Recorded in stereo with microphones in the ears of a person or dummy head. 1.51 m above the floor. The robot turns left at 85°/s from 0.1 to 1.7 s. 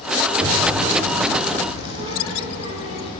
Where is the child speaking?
35° right (ahead or behind), 3.5 m; by 3.1 s 30° right (ahead or behind), 3.5 m.